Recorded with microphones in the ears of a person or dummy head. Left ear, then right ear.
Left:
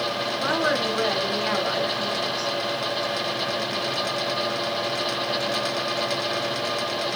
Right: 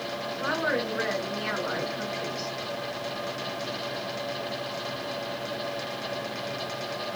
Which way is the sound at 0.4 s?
Centre (ahead or behind).